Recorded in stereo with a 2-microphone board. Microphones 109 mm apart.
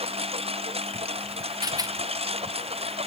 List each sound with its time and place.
0.0 s a lawn mower: 70° right (ahead or behind); by 3.1 s 75° right (ahead or behind)
1.6 s a rattle: 40° right (ahead or behind)